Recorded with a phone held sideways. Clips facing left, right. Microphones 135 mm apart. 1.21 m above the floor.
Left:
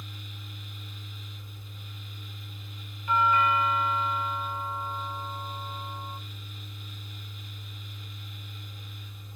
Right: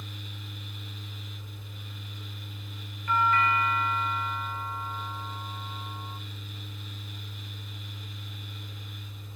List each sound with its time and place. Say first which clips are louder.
0.0 s a fan: right 2 dB; 80° right, 2.5 m
3.1 s a doorbell: left 1 dB; 15° left (ahead or behind), 0.6 m